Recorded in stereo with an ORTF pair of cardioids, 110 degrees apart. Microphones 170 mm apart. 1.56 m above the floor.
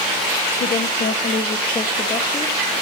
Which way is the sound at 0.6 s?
60° left.